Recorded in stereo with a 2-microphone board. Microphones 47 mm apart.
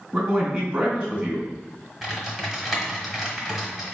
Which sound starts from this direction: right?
A man speaking, at 0.1 s.